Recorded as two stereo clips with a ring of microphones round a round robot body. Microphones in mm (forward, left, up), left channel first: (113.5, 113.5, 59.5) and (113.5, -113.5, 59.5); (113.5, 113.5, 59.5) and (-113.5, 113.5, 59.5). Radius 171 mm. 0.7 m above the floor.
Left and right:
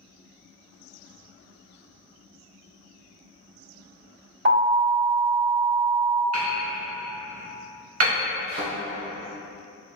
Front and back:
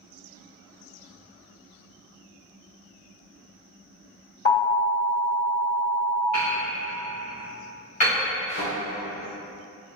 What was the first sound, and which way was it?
An alarm, 55° right.